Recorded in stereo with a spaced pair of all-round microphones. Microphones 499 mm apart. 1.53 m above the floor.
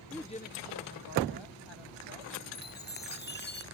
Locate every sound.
0.1 s a woman speaking: centre (ahead or behind); by 2.4 s 75° left (ahead or behind)
2.5 s a chime: 20° left (ahead or behind)